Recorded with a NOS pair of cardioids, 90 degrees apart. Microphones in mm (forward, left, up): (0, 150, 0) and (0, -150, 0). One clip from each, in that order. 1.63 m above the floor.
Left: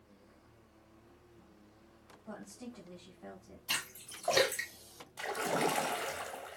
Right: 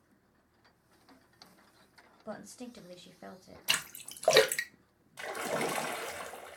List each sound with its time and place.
2.2 s a woman speaking: 65° right, 0.7 m
3.7 s a splash: 65° right, 0.7 m
5.2 s a splash: 10° right, 0.7 m